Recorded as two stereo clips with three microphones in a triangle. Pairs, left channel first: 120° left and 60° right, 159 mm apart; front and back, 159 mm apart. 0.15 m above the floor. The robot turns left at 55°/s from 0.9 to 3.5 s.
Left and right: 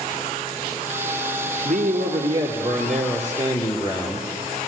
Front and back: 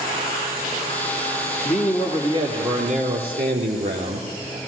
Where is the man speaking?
80° right, 3 m; by 4.6 s 175° left, 3 m.